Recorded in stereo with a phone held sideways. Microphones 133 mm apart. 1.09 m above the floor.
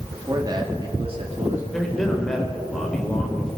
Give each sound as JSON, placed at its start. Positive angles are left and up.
{"t": 0.1, "sound": "a man speaking", "side_deg": -20, "distance_m": 2.5}
{"t": 1.7, "sound": "a man speaking", "side_deg": 5, "distance_m": 4.0}